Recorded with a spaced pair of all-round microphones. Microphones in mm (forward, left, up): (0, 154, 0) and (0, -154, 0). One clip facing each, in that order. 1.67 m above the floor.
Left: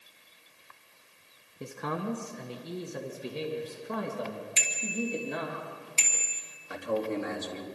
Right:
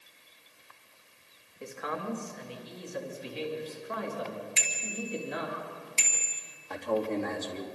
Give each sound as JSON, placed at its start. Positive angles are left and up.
{"t": 1.6, "sound": "a man speaking", "side_deg": 50, "distance_m": 1.3}
{"t": 4.6, "sound": "a bicycle bell", "side_deg": 45, "distance_m": 2.5}
{"t": 6.7, "sound": "a man speaking", "side_deg": 10, "distance_m": 3.5}